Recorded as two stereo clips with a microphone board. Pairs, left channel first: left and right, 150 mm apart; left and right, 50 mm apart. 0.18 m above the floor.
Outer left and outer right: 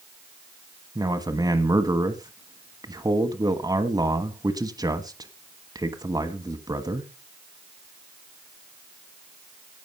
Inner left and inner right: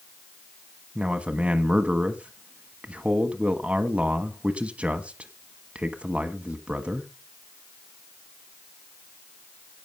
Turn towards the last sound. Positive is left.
turn(degrees=-25)  # may be behind; listen again after turning